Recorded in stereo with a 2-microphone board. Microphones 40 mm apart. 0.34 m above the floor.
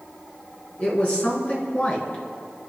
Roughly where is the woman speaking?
Left.